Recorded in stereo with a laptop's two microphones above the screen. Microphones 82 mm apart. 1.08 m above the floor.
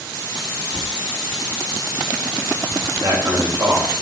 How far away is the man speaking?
About 5 m.